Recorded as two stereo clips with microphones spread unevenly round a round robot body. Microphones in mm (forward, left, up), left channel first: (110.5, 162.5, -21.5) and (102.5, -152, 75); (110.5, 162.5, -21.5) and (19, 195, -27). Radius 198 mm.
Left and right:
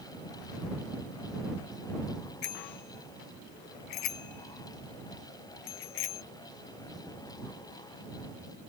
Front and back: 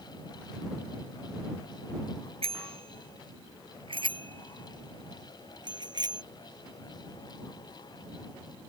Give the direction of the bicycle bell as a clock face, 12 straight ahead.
7 o'clock.